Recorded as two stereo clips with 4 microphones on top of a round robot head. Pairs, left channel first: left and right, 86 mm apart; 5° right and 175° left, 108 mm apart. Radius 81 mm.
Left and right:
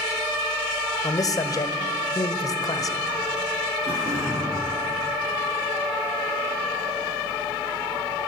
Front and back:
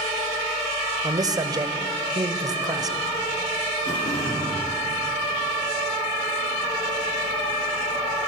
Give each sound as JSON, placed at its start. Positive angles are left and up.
{"t": 1.0, "sound": "a man speaking", "azimuth_deg": 130, "distance_m": 1.9}
{"t": 3.9, "sound": "throat clearing", "azimuth_deg": -45, "distance_m": 9.0}